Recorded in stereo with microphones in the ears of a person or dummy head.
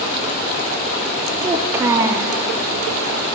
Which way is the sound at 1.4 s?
15° right (ahead or behind).